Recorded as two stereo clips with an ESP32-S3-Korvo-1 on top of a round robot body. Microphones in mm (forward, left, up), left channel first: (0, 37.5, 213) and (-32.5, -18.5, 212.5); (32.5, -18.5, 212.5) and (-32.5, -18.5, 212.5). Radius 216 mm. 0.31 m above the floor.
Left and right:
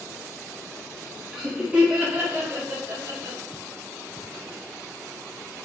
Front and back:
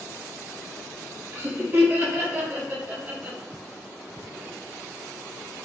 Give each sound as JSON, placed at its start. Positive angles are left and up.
{"t": 1.3, "sound": "laughter", "azimuth_deg": 160, "distance_m": 1.8}